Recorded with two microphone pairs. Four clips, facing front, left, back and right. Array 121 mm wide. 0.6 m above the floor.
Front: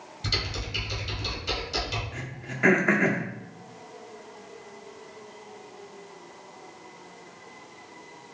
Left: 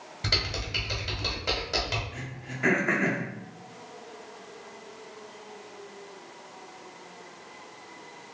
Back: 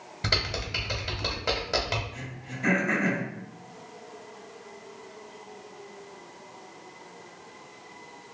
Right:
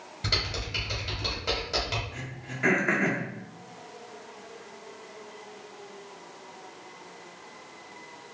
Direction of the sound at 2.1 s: 10° right.